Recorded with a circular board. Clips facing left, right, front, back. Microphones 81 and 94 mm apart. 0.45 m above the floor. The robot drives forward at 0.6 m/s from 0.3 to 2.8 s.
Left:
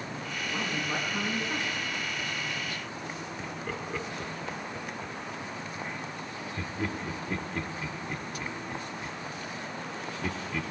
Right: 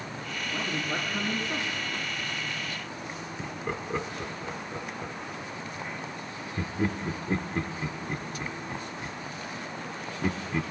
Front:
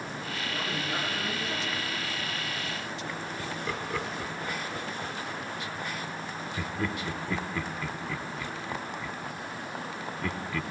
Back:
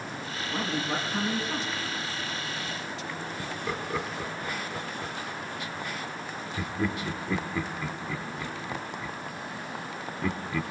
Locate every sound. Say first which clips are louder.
0.5 s a man speaking: right 1 dB, back 4 dB; 165° left, 4 m; by 1.7 s 170° left, 4.5 m
3.4 s laughter: right 4 dB, back 2 dB; 120° right, 1.3 m